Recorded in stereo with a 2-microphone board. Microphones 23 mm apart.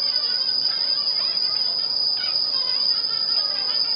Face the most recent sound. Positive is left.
turn(degrees=0)  # may be behind; listen again after turning